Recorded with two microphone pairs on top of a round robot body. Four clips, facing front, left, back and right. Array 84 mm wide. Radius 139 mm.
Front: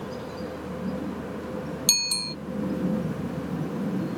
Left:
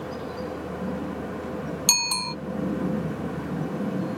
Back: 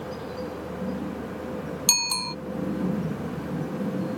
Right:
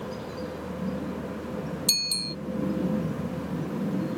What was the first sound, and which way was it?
A bicycle bell, 120° left.